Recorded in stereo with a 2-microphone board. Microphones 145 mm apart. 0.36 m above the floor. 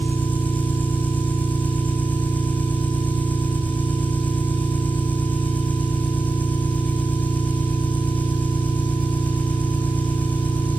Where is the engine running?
10° left (ahead or behind), 7 m.